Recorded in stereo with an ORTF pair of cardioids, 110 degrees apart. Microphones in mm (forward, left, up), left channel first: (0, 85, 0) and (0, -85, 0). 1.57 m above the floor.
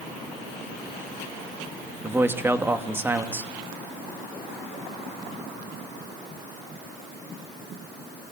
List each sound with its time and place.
2.0 s a man speaking: 15° right, 2.5 m